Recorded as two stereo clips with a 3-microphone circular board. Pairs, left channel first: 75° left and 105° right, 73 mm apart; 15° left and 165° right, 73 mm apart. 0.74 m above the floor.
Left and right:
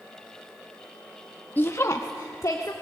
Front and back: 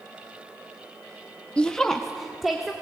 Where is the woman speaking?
70° left, 0.8 m; by 2.7 s 110° left, 2 m.